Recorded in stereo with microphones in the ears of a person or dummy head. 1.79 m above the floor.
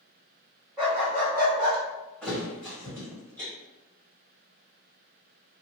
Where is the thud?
10° left (ahead or behind), 1.7 m.